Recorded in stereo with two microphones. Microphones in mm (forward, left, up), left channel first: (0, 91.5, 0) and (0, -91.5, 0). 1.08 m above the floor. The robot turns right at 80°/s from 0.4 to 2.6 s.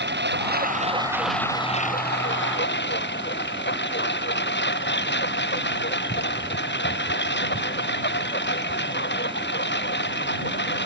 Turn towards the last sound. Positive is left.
turn(degrees=105)